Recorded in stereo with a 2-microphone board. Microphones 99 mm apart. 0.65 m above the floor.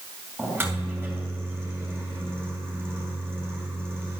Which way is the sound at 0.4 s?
20° right (ahead or behind).